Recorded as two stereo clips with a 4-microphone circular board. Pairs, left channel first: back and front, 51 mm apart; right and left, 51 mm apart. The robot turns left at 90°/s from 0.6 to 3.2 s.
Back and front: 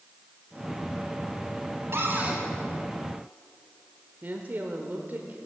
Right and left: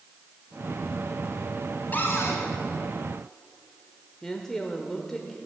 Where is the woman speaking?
15° right, 0.9 m.